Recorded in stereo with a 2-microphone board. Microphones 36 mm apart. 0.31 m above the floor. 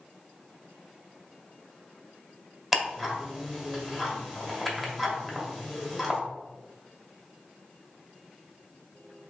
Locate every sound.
2.7 s ticking: 10° right (ahead or behind), 1.5 m